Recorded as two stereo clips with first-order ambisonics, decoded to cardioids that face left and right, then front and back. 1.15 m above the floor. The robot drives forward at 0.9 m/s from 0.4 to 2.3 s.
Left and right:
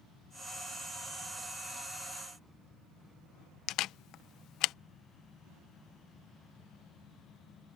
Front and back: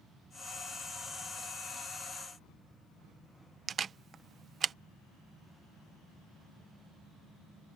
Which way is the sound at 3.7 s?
120° left.